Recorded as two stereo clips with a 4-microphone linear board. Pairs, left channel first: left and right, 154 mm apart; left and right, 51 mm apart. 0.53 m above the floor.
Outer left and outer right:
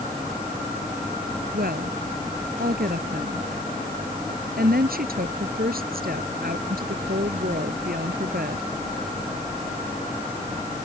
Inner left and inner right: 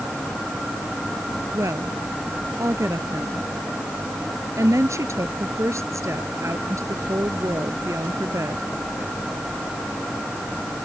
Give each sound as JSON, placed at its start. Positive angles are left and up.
{"t": 1.5, "sound": "a woman speaking", "side_deg": -80}